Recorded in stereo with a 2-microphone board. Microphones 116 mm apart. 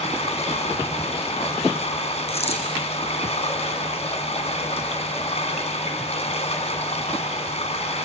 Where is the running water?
65° left (ahead or behind), 2.5 m.